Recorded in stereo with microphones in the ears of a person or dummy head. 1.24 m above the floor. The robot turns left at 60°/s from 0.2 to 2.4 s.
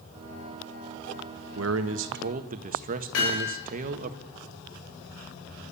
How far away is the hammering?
About 5.5 m.